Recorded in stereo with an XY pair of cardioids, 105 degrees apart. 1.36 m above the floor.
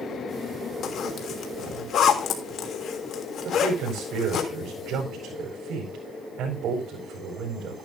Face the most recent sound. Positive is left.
turn(degrees=-70)